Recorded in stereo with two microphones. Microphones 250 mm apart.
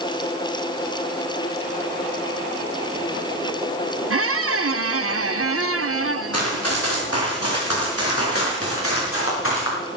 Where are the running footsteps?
75° left (ahead or behind), 6 m; by 9.8 s 55° left (ahead or behind), 7 m.